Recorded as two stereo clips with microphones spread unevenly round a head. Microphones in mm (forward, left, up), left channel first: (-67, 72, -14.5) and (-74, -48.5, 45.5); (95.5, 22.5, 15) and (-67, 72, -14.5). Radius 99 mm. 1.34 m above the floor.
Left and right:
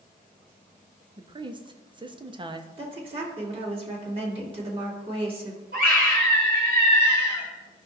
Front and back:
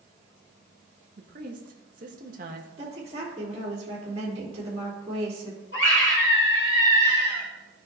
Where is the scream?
60° right, 2.5 m.